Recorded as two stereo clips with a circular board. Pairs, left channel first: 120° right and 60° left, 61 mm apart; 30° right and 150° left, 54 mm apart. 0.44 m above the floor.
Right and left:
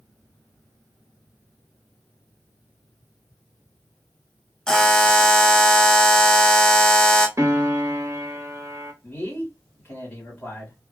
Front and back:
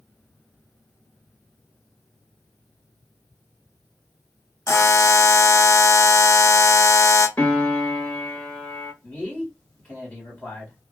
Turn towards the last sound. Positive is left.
turn(degrees=-75)